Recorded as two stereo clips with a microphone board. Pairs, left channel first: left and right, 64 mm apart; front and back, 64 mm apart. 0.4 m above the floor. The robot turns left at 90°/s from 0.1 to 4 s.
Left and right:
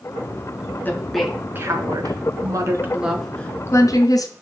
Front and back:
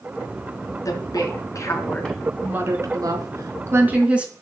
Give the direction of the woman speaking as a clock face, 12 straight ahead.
11 o'clock.